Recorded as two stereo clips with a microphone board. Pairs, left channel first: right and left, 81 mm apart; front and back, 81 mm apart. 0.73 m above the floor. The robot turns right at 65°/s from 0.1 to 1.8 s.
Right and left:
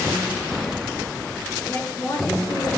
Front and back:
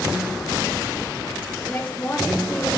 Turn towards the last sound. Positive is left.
turn(degrees=-55)